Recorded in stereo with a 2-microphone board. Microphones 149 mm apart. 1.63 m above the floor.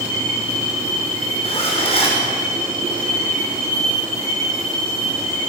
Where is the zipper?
40° left (ahead or behind), 5.5 m.